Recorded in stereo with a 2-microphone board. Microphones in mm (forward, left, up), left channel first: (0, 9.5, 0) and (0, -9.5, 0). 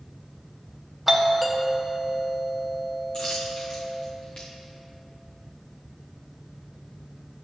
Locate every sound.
1.1 s a doorbell: 10° right (ahead or behind), 1.6 m
3.1 s a dropped coin: 45° left (ahead or behind), 3.5 m